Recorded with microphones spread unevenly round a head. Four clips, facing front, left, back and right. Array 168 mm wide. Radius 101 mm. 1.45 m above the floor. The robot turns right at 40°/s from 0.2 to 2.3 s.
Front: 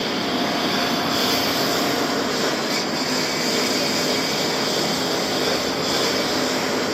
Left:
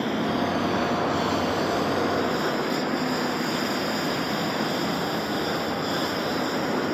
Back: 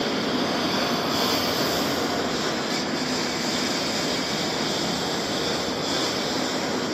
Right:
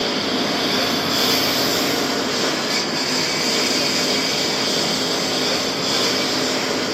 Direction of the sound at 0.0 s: 130° right.